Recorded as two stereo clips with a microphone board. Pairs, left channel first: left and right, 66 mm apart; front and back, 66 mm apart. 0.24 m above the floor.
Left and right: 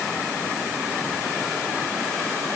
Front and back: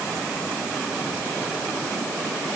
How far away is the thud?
I don't hear a thud.